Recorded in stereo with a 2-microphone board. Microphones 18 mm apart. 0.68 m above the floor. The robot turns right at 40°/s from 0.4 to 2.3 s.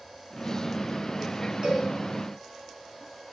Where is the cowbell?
65° right (ahead or behind), 5 m; by 1.9 s 75° right (ahead or behind), 5 m.